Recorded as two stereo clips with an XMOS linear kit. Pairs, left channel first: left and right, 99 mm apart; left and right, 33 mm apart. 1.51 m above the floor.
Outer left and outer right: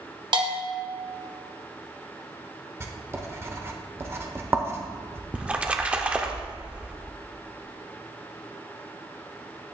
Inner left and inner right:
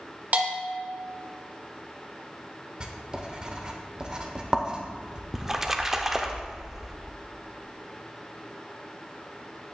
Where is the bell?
50° right (ahead or behind), 1.2 m.